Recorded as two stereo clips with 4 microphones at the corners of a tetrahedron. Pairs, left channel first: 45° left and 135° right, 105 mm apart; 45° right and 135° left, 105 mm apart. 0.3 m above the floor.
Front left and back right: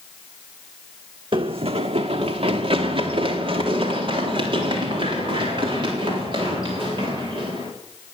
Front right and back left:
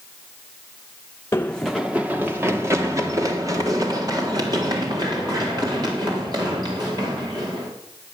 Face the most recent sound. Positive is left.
turn(degrees=180)